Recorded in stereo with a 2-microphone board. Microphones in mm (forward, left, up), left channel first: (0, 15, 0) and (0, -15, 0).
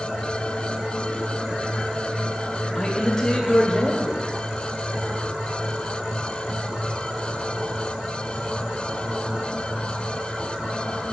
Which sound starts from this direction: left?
A man speaking, at 2.8 s.